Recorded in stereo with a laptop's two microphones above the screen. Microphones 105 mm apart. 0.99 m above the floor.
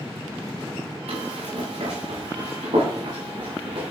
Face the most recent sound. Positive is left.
turn(degrees=-50)  # may be behind; listen again after turning